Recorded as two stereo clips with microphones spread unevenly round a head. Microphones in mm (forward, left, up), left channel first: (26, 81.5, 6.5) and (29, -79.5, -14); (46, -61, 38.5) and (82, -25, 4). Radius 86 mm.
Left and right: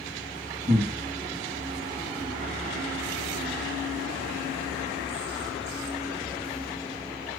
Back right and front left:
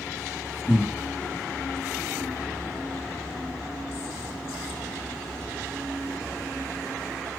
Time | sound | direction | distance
0.7 | breathing | 160° right | 1.9 m